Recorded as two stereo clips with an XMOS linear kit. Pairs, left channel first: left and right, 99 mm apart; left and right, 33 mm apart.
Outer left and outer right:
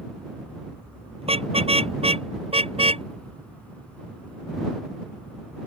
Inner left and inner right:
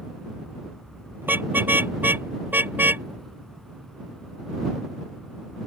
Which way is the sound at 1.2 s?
85° right.